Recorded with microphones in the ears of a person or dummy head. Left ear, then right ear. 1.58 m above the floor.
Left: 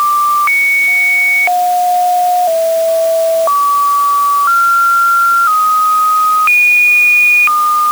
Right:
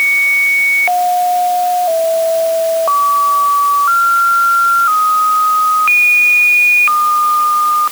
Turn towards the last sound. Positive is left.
No sound to turn to.